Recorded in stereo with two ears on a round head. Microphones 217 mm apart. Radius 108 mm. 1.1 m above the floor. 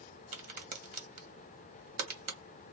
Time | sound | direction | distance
0.3 | a crack | 35° right (ahead or behind) | 1.3 m